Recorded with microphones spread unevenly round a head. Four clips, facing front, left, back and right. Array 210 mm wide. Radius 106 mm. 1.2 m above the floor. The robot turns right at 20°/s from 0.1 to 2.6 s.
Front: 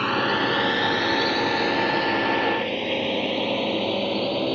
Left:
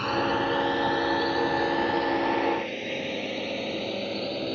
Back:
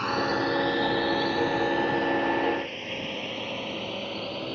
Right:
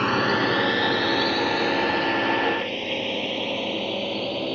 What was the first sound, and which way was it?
A drone, 70° right.